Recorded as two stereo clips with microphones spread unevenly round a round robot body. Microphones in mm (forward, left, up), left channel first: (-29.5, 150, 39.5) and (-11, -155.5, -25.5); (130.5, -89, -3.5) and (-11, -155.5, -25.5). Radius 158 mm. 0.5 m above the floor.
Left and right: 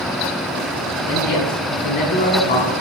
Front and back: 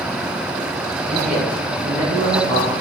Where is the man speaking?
140° left, 3.5 m; by 2.7 s 160° left, 4 m.